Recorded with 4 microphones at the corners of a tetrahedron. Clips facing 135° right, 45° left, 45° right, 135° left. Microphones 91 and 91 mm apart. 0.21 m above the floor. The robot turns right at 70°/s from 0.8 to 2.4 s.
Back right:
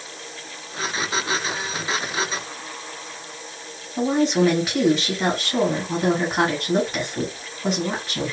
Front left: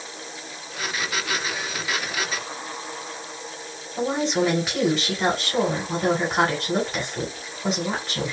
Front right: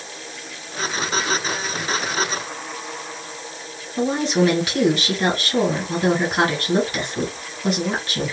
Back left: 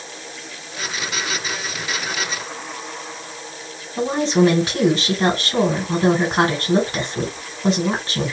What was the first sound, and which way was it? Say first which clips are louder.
A woman speaking: back right 4 dB, back left 2 dB; 135° left.